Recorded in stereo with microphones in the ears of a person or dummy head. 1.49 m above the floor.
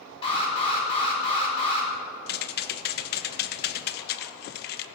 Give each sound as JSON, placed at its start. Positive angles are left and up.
{"t": 0.2, "sound": "an alarm", "side_deg": 25, "distance_m": 4.5}
{"t": 2.3, "sound": "typing on a keyboard", "side_deg": 50, "distance_m": 0.6}